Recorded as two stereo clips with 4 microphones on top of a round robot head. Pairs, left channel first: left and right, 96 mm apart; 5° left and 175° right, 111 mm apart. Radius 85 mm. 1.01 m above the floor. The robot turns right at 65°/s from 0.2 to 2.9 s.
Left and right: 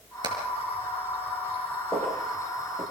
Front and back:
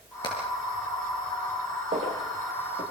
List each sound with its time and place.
0.2 s hammering: 50° right, 5.5 m; by 0.3 s 45° right, 5.5 m
1.9 s footsteps: 160° left, 7 m; by 2.8 s 140° right, 7 m